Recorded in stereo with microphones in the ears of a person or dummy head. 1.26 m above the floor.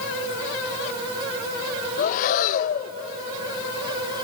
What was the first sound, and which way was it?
Breathing, 45° left (ahead or behind).